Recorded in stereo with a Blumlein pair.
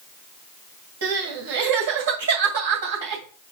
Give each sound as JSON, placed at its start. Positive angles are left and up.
{"t": 1.0, "sound": "crying", "azimuth_deg": -55, "distance_m": 2.5}